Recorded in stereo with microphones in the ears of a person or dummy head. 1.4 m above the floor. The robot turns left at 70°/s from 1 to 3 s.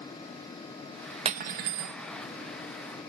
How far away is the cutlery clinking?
About 0.9 m.